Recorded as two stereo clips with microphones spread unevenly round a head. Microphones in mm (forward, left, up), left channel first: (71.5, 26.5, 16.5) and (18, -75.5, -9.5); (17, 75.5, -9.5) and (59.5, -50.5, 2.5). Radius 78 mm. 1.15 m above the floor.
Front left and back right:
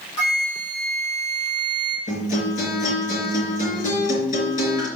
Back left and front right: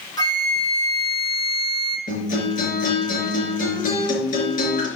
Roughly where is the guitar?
Left.